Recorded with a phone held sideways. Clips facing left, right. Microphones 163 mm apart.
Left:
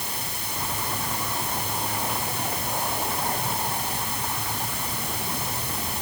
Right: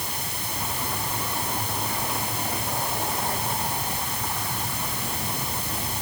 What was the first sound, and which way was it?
Only background noise.